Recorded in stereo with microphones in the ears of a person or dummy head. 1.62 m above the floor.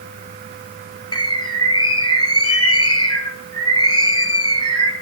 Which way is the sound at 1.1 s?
25° left (ahead or behind).